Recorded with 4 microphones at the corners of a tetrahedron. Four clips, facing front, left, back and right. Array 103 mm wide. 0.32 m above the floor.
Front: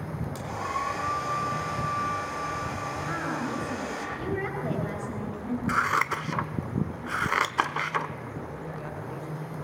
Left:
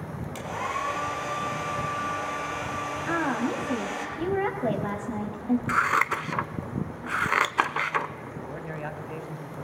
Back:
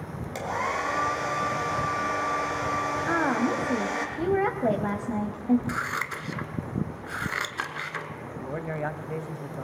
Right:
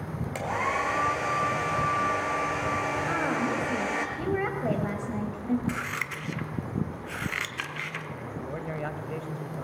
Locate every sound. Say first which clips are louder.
0.3 s a hair dryer: right 3 dB, back 4 dB; 120° right, 3 m
3.1 s a woman speaking: left 5 dB, back 7 dB; 155° left, 1.7 m
5.7 s scissors: left 10 dB, front 5 dB; 60° left, 0.8 m
8.4 s a man speaking: right 2 dB, back 6 dB; 175° right, 1.5 m